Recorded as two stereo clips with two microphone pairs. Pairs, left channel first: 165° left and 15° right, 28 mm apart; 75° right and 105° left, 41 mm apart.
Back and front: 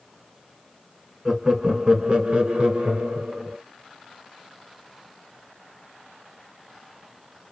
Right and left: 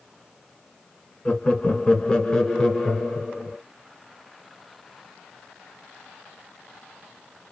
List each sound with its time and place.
1.2 s laughter: 75° right, 1.1 m; by 3.6 s straight ahead, 2 m